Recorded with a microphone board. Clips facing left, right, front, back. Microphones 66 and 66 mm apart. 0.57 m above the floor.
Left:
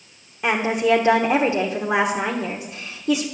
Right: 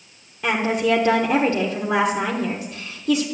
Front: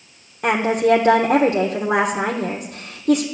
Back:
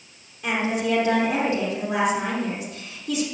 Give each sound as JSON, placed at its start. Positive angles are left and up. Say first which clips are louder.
{"t": 0.4, "sound": "a woman speaking", "louder": "left 1 dB, front 7 dB", "azimuth_deg": 15, "distance_m": 1.3}